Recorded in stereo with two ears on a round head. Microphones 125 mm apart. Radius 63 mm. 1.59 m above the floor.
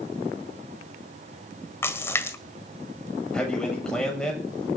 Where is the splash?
15° left (ahead or behind), 1.5 m.